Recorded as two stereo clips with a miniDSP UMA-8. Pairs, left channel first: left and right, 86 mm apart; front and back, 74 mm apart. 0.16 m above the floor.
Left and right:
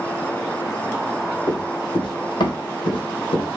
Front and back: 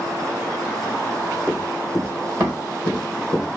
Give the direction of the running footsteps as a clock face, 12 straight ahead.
8 o'clock.